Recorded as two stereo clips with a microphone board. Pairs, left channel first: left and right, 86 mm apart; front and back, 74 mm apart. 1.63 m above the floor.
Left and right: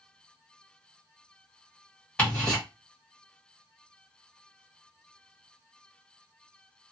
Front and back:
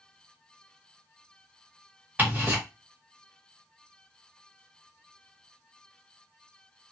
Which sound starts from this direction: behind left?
Ticking, at 2.2 s.